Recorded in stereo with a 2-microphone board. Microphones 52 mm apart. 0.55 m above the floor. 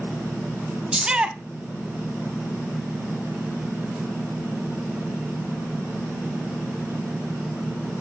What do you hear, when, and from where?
0.9 s a shout: 20° right (ahead or behind), 0.8 m